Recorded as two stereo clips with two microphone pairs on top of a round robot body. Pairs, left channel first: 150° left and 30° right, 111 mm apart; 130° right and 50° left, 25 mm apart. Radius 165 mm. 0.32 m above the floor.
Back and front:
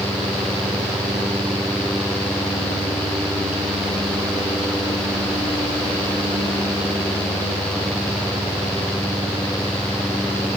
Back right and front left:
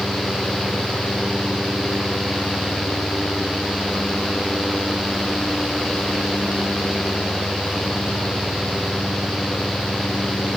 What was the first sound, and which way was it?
Only background noise.